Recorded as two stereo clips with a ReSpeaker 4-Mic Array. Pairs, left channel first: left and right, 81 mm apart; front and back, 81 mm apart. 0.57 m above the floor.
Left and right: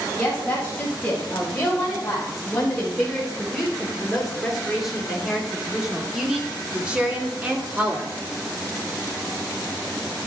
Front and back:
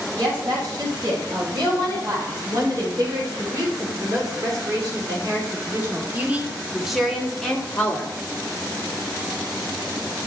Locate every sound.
0.2 s a woman speaking: 170° left, 4 m; by 8.1 s 40° right, 1.4 m